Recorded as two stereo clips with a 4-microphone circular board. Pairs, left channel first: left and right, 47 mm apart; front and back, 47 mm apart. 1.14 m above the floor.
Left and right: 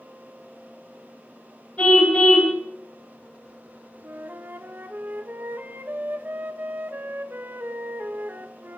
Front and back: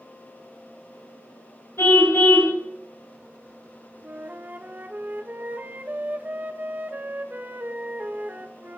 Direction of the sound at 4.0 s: 130° right.